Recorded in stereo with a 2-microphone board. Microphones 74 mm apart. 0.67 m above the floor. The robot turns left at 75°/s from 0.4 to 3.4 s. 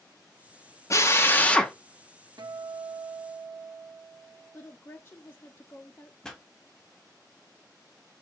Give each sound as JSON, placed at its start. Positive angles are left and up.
{"t": 0.9, "sound": "a drill", "azimuth_deg": 70, "distance_m": 0.8}
{"t": 2.4, "sound": "a guitar", "azimuth_deg": -60, "distance_m": 0.5}
{"t": 4.5, "sound": "a woman speaking", "side_deg": 30, "distance_m": 0.6}
{"t": 6.2, "sound": "a pop", "side_deg": 5, "distance_m": 0.9}